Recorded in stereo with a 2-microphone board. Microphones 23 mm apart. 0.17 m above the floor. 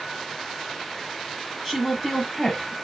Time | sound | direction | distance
1.6 | a woman speaking | 10° right (ahead or behind) | 1.2 m